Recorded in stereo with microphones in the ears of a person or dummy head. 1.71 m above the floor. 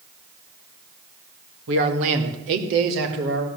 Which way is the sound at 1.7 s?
70° right (ahead or behind).